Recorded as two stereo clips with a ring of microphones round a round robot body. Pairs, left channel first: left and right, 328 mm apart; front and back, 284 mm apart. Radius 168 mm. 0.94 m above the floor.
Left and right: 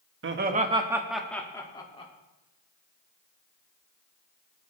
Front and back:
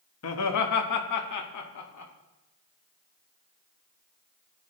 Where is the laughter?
40° right, 1.3 m; by 2.1 s 20° left, 2.5 m.